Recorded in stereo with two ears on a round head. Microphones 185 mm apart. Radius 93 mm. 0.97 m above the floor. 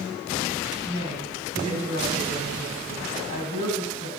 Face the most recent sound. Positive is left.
turn(degrees=-80)